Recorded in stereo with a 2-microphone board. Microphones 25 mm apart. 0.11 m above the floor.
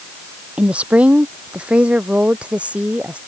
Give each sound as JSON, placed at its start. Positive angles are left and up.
{"t": 0.6, "sound": "a woman speaking", "side_deg": -65}